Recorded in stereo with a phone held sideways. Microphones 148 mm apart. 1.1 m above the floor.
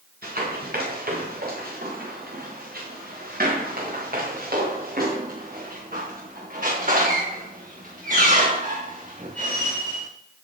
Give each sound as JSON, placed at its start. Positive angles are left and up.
{"t": 0.2, "sound": "running footsteps", "side_deg": -80, "distance_m": 8.0}